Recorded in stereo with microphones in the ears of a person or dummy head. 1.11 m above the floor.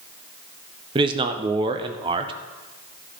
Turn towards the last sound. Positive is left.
turn(degrees=-20)  # may be behind; listen again after turning